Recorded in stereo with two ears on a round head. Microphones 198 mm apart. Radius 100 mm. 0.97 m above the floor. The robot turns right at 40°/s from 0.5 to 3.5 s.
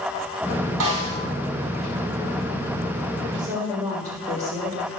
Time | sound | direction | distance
0.8 | a snare drum | 75° right (ahead or behind) | 4.5 m
3.4 | a woman speaking | 20° right (ahead or behind) | 4.5 m